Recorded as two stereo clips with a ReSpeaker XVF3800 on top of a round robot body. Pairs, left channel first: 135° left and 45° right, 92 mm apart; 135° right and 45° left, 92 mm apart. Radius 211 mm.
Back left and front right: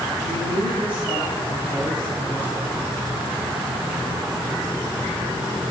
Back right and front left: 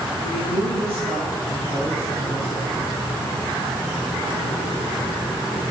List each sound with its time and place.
0.2 s a man speaking: 30° left, 6.5 m; by 2.8 s 25° left, 5.5 m